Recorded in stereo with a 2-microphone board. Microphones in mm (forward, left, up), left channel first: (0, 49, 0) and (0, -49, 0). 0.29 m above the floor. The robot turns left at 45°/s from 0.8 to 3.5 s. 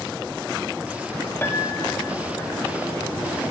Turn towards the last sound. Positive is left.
turn(degrees=55)